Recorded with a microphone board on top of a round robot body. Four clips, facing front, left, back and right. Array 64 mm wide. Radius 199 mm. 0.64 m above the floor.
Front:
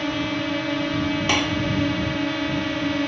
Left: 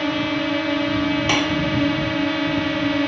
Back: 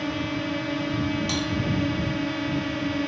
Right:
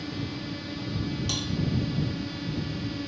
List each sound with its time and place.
0.0 s a drone: 75° left
1.3 s dishes clattering: 50° left